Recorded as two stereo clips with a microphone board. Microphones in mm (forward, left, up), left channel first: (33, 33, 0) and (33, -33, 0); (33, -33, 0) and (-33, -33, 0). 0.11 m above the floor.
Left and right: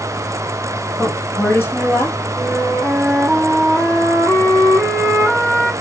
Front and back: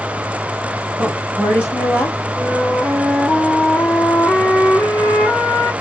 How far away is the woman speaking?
About 2.5 m.